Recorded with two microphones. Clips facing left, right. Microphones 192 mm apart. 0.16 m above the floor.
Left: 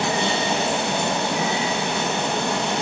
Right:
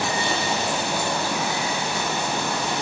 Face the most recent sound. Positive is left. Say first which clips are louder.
# left 3 dB
turn(degrees=20)  # may be behind; listen again after turning